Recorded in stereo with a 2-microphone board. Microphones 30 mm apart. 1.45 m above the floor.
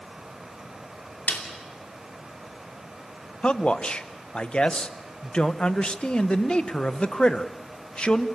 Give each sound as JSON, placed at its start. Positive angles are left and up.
{"t": 1.3, "sound": "a snare drum", "side_deg": 75, "distance_m": 3.0}
{"t": 3.4, "sound": "a man speaking", "side_deg": 40, "distance_m": 1.0}